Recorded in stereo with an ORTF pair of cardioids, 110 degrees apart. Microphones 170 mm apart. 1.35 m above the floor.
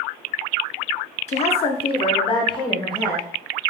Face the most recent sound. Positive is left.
turn(degrees=25)